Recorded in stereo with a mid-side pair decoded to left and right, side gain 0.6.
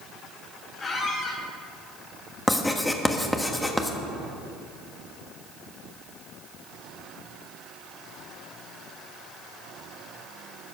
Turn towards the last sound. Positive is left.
turn(degrees=10)